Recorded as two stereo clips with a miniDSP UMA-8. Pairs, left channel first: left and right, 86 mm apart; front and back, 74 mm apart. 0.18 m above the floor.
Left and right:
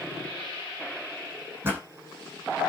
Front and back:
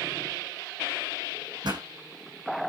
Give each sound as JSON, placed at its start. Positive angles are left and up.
{"t": 1.6, "sound": "a pop", "azimuth_deg": -155, "distance_m": 7.0}